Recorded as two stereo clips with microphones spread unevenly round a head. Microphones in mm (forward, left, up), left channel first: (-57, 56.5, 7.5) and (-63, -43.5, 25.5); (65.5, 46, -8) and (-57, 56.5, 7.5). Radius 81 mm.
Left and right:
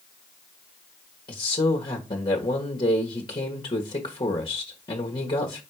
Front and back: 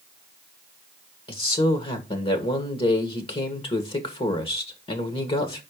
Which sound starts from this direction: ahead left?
A man speaking, at 1.3 s.